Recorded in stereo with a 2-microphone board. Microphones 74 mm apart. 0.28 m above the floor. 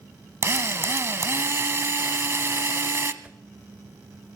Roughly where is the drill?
Right.